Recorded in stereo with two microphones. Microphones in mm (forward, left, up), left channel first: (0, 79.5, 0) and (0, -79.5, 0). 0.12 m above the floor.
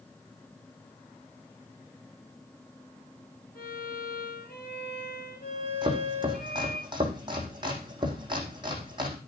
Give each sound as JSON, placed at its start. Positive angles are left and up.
{"t": 3.5, "sound": "a violin", "side_deg": 70, "distance_m": 8.0}
{"t": 5.8, "sound": "chopping", "side_deg": -30, "distance_m": 5.0}